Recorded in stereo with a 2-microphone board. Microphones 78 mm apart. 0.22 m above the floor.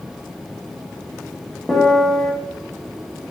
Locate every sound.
1.7 s a piano: 5° left (ahead or behind), 0.6 m